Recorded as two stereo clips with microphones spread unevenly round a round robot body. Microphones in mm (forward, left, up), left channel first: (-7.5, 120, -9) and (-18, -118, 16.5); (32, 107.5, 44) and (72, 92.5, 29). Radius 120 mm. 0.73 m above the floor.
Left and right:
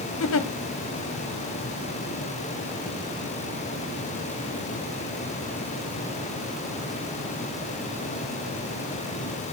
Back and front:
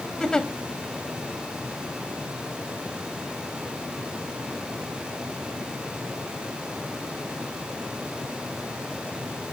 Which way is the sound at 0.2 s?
75° left.